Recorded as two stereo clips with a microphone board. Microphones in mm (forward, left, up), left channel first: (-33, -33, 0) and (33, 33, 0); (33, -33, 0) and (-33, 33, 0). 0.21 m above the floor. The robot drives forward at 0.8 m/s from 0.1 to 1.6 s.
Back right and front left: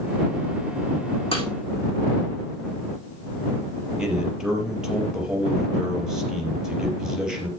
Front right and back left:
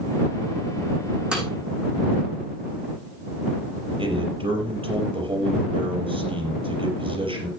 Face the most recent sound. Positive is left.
turn(degrees=130)